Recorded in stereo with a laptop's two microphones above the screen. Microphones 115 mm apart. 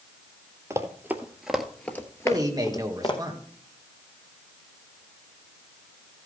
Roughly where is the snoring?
I don't hear snoring.